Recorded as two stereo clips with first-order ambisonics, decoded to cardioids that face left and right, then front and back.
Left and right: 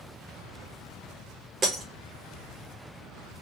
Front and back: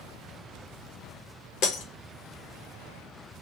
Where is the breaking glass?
25° right, 0.7 m.